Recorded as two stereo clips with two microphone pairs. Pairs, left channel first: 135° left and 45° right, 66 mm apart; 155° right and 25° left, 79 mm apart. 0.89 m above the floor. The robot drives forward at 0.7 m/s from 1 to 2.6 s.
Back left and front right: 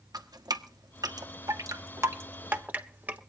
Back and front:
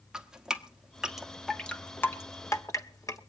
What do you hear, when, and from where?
0.1 s dripping: 55° right, 1.3 m; by 3.2 s 110° right, 1.2 m